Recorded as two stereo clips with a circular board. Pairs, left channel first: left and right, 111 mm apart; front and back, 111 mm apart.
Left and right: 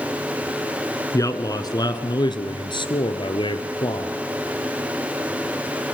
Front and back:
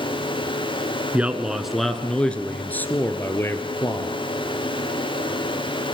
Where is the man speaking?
115° left, 1.4 m; by 4.1 s 55° left, 2.5 m.